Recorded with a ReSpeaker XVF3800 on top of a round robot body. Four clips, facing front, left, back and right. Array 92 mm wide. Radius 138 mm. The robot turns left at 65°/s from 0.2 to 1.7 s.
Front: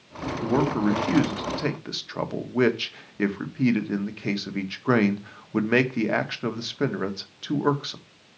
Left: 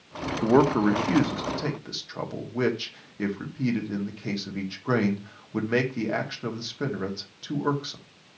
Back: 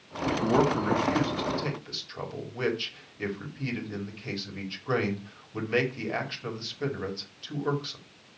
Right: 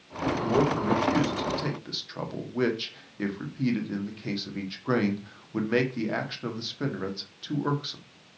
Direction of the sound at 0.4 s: 95° left.